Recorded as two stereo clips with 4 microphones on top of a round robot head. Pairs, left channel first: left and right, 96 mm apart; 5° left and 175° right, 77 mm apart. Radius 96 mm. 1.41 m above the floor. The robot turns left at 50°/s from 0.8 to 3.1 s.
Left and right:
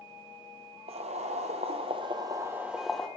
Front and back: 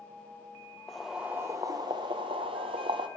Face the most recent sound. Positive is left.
turn(degrees=170)